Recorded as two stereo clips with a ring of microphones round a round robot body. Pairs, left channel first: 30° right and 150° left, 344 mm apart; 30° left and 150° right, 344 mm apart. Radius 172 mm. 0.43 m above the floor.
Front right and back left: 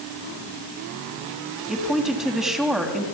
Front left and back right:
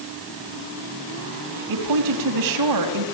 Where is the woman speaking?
120° right, 3.5 m.